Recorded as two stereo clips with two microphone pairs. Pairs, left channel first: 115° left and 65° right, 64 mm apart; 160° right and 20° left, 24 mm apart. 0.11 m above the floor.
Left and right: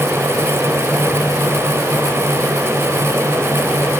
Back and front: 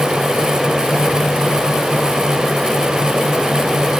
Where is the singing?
I don't hear singing.